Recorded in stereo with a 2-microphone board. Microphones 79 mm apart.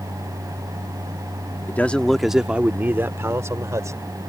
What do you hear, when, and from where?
1.7 s a man speaking: 25° left (ahead or behind); by 4.1 s 45° right (ahead or behind)